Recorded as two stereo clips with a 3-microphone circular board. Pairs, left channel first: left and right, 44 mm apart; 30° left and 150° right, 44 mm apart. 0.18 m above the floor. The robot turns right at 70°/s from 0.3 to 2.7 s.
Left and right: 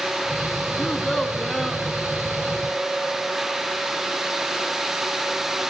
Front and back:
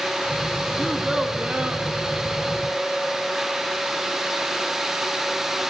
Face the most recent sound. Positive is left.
turn(degrees=-95)